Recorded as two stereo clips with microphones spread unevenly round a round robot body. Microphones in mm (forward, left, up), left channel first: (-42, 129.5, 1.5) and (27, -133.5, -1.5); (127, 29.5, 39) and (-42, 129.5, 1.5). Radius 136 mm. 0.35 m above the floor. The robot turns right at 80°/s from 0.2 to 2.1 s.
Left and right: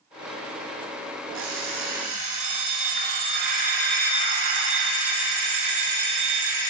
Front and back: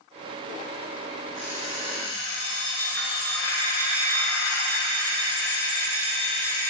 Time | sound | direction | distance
1.3 | an alarm clock | 125° right | 2.5 m